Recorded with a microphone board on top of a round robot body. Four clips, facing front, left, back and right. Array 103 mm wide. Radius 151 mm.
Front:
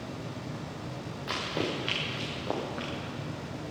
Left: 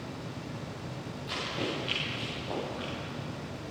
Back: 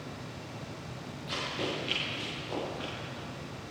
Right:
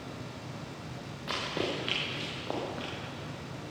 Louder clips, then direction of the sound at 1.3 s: Right 2 dB, front 3 dB; 40° right.